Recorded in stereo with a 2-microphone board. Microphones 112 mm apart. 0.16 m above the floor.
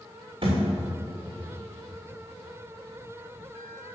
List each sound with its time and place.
0.4 s a thud: 50° right (ahead or behind), 3.5 m